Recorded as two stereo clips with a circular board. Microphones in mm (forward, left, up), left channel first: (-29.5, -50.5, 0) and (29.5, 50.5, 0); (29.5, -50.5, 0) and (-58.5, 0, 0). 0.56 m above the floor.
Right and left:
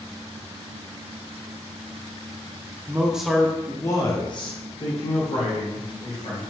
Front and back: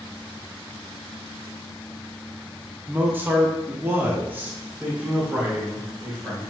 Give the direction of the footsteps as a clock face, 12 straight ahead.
No footsteps in this recording.